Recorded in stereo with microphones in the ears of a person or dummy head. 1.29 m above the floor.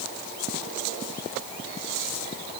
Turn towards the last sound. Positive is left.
No sound to turn to.